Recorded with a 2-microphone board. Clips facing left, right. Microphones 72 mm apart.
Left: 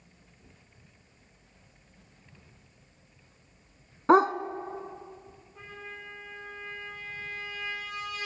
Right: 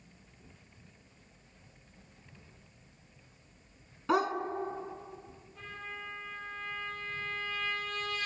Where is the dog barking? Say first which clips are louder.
Left 9 dB; 40° left (ahead or behind), 1.1 m.